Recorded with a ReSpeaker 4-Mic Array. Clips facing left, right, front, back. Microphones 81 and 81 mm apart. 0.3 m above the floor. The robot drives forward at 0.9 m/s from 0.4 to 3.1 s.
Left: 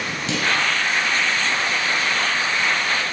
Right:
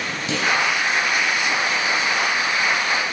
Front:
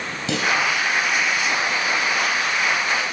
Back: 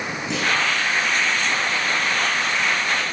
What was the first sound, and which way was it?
A clunk, 10° right.